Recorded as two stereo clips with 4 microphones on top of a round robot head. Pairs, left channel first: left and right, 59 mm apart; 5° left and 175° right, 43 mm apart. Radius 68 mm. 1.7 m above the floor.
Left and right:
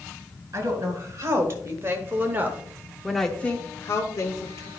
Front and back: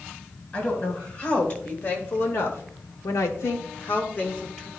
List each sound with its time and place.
0.5 s a woman speaking: 55° right, 2.5 m; by 4.7 s 75° left, 1.4 m